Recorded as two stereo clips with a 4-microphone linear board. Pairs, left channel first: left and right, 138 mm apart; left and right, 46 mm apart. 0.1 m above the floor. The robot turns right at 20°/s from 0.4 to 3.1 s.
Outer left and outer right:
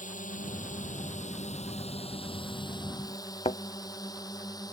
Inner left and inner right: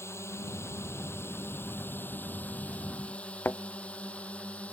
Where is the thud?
45° left (ahead or behind).